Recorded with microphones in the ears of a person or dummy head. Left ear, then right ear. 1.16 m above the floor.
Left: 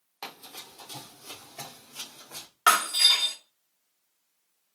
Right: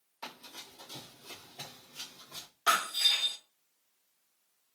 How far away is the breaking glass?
About 1.1 m.